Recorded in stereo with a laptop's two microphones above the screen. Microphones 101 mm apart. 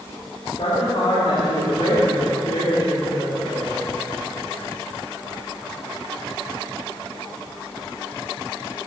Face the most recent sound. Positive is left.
turn(degrees=60)  # may be behind; listen again after turning